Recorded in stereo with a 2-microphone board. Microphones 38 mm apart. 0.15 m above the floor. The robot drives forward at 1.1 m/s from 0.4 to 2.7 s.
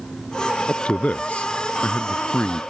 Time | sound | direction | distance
0.7 | a man speaking | 30° left (ahead or behind) | ?